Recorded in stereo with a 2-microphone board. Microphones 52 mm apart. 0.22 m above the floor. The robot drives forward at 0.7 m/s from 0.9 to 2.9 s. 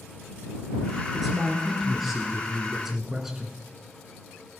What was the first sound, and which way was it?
A man speaking, 5° right (ahead or behind).